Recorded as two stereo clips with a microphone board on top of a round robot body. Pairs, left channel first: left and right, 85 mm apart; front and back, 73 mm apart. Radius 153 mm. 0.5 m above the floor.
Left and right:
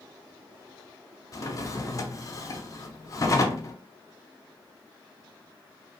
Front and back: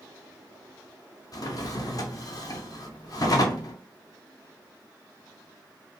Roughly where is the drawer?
Ahead left.